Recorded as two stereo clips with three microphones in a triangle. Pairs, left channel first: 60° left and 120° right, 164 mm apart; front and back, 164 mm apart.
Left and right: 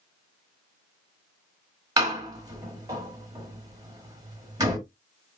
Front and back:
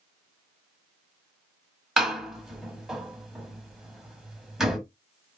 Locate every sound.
2.0 s a door slam: 95° right, 1.1 m